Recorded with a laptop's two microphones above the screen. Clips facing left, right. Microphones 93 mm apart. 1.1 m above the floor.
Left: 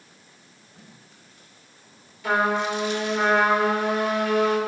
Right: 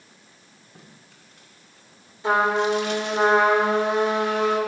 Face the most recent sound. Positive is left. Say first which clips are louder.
# right 2 dB
turn(degrees=-25)  # may be behind; listen again after turning